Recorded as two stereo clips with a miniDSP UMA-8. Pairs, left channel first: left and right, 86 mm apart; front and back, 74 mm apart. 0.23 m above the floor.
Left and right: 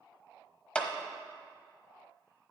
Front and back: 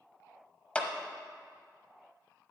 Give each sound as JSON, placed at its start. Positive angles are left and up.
{"t": 0.8, "sound": "a clap", "azimuth_deg": 35, "distance_m": 0.9}